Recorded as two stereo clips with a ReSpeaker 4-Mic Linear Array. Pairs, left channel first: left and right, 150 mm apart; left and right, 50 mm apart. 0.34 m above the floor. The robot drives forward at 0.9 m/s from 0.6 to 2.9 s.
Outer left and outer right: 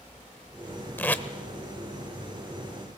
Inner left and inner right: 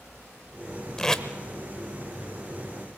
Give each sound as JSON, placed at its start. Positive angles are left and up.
{"t": 1.0, "sound": "tape being pulled", "side_deg": 15, "distance_m": 0.8}